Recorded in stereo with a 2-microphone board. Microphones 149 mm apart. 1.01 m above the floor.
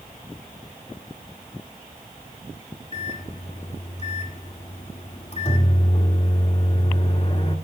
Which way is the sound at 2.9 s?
45° left (ahead or behind).